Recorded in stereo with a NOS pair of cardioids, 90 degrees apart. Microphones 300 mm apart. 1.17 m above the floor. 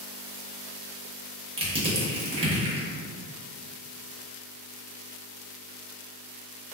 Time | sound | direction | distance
1.6 | crushing | 20° right | 1.2 m